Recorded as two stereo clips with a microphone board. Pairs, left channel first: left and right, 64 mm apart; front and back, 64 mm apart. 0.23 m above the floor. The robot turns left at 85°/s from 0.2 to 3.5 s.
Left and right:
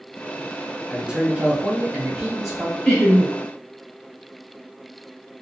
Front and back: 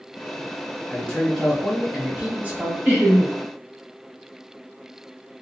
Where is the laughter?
150° left, 1.2 m; by 3.3 s 110° left, 1.2 m.